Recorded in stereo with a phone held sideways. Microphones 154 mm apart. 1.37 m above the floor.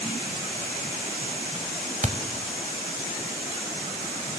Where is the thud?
50° right (ahead or behind), 1.7 m.